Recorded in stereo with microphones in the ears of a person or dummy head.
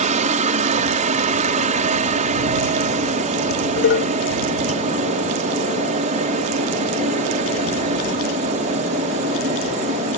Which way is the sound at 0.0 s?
40° right (ahead or behind).